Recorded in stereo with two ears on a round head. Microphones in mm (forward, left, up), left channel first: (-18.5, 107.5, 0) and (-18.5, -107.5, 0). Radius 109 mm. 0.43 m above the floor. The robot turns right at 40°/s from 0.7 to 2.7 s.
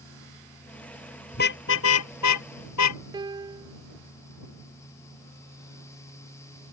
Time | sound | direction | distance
1.3 | a car horn | 40° left (ahead or behind) | ?
3.1 | a piano | 20° right (ahead or behind) | ?